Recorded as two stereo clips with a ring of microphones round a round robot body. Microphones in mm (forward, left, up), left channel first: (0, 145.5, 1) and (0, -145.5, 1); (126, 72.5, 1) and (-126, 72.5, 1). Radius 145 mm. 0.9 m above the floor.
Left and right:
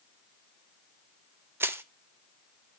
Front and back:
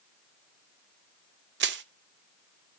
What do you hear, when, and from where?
1.6 s crushing: 170° right, 0.6 m